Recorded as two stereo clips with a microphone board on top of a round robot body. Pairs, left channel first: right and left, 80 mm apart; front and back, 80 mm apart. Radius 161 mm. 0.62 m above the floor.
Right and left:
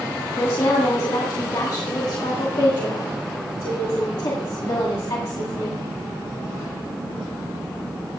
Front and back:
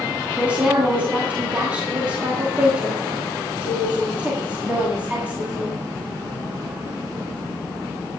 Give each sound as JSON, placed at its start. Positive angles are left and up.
{"t": 0.4, "sound": "a woman speaking", "azimuth_deg": -110, "distance_m": 2.0}